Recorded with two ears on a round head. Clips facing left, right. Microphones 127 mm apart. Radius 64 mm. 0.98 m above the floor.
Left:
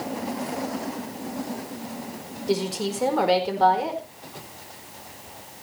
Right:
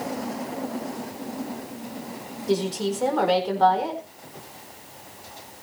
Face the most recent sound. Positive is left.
turn(degrees=5)  # may be behind; listen again after turning